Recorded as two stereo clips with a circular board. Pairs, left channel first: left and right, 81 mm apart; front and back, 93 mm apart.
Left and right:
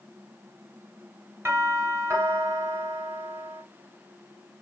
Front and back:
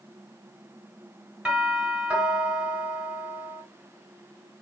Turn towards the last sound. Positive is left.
turn(degrees=-110)